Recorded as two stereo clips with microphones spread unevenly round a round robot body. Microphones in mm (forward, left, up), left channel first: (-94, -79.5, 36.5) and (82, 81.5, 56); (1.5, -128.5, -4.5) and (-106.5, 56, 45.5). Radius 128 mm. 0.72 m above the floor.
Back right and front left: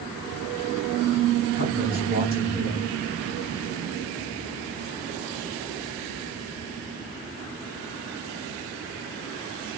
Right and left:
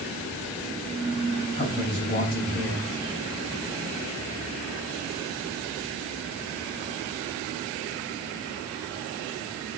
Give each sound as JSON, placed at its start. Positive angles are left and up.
{"t": 1.5, "sound": "a man speaking", "azimuth_deg": -105, "distance_m": 3.5}